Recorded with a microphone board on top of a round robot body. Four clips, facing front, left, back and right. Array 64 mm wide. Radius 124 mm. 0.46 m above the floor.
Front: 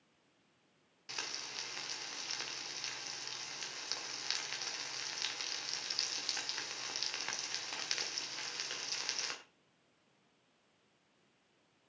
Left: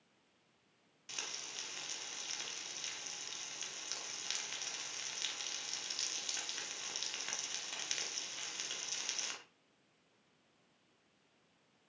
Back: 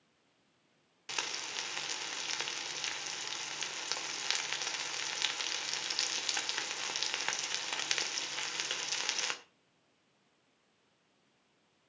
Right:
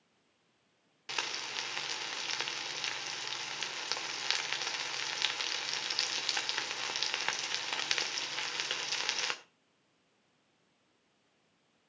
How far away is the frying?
About 2 m.